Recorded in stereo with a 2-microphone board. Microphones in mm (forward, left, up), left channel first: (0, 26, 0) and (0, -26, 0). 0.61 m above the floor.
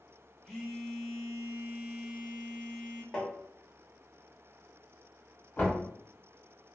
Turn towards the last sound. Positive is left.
turn(degrees=40)  # may be behind; listen again after turning